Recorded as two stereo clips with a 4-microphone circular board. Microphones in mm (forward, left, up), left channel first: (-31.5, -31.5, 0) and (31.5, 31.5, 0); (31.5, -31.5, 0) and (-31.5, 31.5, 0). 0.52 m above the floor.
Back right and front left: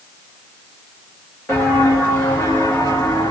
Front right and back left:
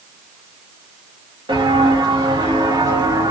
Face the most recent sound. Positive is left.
turn(degrees=180)